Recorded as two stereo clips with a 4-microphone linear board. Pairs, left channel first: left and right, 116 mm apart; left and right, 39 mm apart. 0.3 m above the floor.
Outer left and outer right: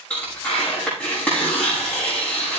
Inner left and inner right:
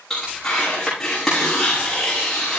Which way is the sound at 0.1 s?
15° left (ahead or behind).